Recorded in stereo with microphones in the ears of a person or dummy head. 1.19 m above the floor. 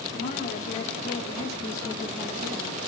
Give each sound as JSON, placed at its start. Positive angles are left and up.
{"t": 0.1, "sound": "a woman speaking", "side_deg": 50, "distance_m": 3.0}